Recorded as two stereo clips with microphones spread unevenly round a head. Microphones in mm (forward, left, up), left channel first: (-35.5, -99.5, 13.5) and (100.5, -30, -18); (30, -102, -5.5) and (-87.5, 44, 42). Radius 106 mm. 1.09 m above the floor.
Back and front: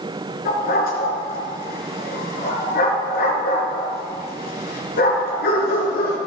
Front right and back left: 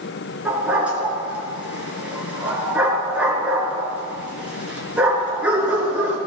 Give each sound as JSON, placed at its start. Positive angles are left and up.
{"t": 0.5, "sound": "a dog barking", "azimuth_deg": -150, "distance_m": 5.0}